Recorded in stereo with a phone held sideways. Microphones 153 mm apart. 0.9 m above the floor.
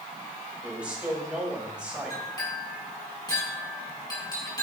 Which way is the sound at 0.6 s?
5° right (ahead or behind).